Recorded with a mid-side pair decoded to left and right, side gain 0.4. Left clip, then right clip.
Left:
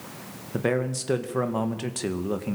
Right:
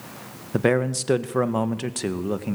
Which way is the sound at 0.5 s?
45° right.